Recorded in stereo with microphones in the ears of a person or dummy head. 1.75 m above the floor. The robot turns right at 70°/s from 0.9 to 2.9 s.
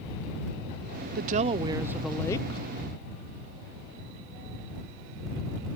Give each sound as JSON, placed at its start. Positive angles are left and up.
{"t": 1.1, "sound": "a woman speaking", "azimuth_deg": -65}